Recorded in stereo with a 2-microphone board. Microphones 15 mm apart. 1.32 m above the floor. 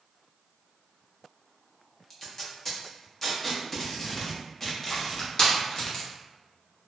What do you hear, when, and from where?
2.1 s tape being pulled: 30° left (ahead or behind), 0.6 m
4.9 s crushing: 55° left (ahead or behind), 0.9 m